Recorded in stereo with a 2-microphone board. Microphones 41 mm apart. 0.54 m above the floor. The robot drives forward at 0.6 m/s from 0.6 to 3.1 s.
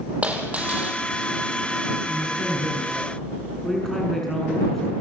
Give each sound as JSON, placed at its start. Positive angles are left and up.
{"t": 0.2, "sound": "a dropped coin", "side_deg": -30, "distance_m": 6.0}
{"t": 2.1, "sound": "a woman speaking", "side_deg": 10, "distance_m": 6.5}